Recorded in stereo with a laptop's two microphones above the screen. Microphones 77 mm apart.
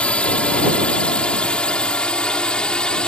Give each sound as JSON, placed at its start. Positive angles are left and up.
{"t": 0.0, "sound": "a drone", "side_deg": 15}